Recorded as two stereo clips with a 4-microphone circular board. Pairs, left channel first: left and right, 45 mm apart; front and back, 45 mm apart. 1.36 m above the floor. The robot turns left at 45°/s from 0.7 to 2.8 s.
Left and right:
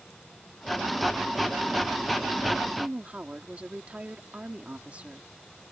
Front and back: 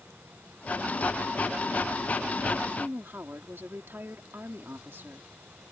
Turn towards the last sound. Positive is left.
turn(degrees=-150)